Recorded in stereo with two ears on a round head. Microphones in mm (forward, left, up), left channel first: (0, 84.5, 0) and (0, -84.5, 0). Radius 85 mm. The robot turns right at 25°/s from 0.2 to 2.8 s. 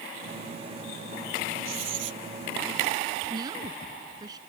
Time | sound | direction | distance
1.6 | writing | 80° right | ?
3.3 | a woman speaking | 20° right (ahead or behind) | ?